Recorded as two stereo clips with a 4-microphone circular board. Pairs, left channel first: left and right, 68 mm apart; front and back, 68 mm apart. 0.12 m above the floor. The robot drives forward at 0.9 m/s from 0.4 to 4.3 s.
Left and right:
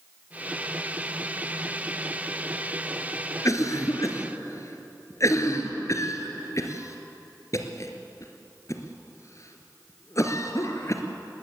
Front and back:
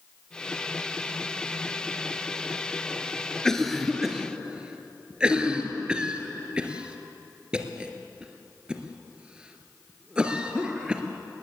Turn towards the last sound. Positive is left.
turn(degrees=105)